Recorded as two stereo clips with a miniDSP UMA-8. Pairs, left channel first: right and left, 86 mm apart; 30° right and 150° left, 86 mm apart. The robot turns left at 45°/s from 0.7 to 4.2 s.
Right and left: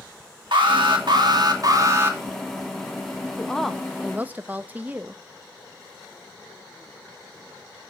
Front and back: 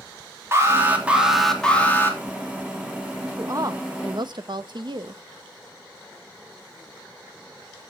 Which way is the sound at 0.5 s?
90° left.